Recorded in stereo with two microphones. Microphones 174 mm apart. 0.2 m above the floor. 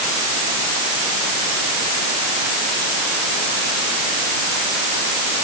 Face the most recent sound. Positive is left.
No sound to turn to.